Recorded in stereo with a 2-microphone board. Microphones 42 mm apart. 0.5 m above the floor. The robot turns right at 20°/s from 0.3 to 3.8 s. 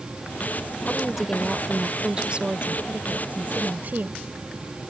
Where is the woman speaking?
Straight behind; by 4.2 s 120° right.